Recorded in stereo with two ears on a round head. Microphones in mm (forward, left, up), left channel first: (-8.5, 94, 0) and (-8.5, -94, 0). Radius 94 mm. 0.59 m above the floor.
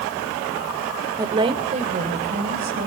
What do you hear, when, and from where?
1.2 s a woman speaking: 15° right (ahead or behind), 1.8 m; by 2.9 s 50° right (ahead or behind), 4 m